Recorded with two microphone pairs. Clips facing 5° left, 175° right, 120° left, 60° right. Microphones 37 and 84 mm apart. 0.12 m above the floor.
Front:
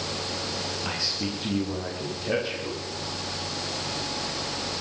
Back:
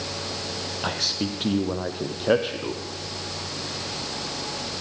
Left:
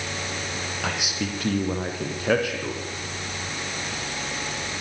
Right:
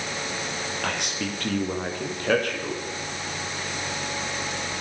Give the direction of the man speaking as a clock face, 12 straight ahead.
5 o'clock.